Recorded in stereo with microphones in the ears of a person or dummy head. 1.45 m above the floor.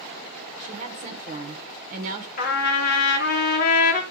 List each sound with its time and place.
0.6 s a woman speaking: 45° right (ahead or behind), 1.0 m
2.4 s a trumpet: 55° left (ahead or behind), 1.6 m